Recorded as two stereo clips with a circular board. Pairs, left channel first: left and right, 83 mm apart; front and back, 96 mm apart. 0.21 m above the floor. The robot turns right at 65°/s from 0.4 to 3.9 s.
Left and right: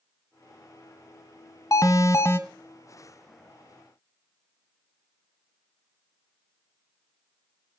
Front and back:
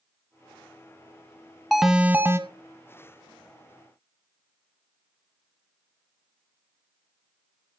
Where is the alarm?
90° left, 0.8 m; by 2.4 s 135° left, 0.8 m.